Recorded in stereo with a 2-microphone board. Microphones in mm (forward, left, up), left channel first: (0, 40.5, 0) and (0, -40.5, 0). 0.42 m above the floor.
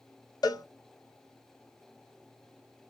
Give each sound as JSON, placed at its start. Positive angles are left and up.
{"t": 0.4, "sound": "a cowbell", "side_deg": 55, "distance_m": 0.6}